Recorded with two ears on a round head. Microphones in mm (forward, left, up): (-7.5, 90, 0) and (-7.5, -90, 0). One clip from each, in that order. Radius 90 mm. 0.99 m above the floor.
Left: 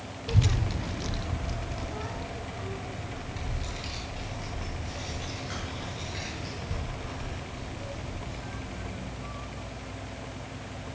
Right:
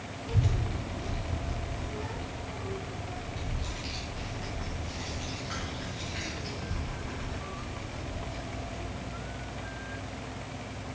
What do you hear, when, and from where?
0.3 s a child speaking: 50° left (ahead or behind), 0.6 m; by 9.1 s 10° left (ahead or behind), 4.5 m